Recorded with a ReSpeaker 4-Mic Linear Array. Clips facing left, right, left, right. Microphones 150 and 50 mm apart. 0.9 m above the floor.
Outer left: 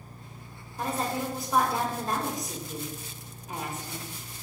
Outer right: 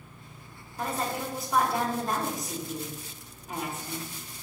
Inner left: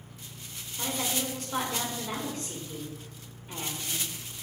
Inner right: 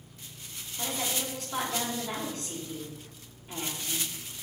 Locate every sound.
0.8 s a woman speaking: centre (ahead or behind), 1.8 m